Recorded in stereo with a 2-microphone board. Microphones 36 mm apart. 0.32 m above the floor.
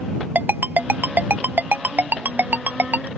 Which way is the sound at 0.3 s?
65° right (ahead or behind).